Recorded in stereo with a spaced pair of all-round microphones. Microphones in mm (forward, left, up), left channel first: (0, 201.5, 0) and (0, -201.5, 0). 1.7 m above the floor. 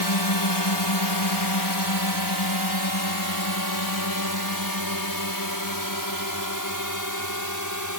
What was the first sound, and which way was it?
A drone, 75° left (ahead or behind).